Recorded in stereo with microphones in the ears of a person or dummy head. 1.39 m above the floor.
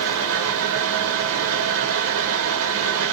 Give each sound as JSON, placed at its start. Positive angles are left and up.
{"t": 0.0, "sound": "a fan", "side_deg": -80, "distance_m": 0.8}